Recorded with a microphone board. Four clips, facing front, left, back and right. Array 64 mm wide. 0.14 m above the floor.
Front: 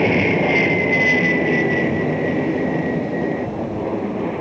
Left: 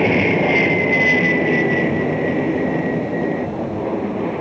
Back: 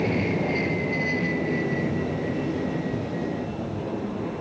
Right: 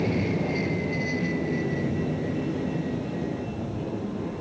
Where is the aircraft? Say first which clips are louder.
Left 10 dB, front 8 dB; 55° left.